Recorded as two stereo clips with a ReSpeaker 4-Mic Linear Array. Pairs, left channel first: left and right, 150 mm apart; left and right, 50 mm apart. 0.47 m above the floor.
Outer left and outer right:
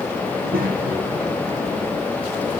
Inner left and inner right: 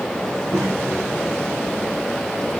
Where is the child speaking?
75° right (ahead or behind), 3.5 m; by 2.6 s 70° right (ahead or behind), 3.5 m.